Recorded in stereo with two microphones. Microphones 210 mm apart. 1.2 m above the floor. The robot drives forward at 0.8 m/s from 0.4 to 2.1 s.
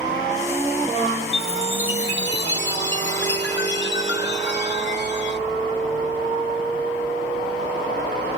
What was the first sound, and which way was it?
A chime, 70° left (ahead or behind).